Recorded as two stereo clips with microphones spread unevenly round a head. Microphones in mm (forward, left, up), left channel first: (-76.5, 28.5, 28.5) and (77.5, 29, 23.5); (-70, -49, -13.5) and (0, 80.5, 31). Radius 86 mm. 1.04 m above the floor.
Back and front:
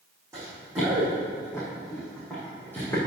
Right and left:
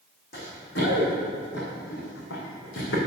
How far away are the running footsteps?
About 3.5 m.